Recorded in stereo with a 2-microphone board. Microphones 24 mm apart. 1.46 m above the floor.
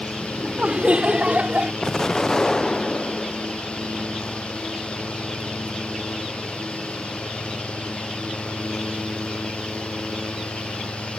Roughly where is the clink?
No clink in this recording.